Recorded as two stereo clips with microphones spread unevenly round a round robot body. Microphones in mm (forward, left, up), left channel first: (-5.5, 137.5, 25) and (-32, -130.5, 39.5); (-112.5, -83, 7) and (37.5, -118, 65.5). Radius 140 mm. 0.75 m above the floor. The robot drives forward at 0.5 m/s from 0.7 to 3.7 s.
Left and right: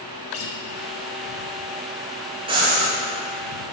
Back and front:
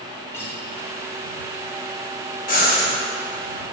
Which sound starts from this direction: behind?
Breathing, at 2.5 s.